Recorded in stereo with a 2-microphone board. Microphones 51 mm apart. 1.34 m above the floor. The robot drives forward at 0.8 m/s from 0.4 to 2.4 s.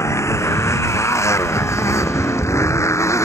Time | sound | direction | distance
0.0 | a motorcycle | 70° left (ahead or behind) | ?